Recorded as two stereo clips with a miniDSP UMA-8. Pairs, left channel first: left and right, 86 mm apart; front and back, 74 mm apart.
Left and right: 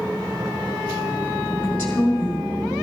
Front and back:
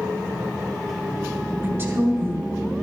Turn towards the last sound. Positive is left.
turn(degrees=150)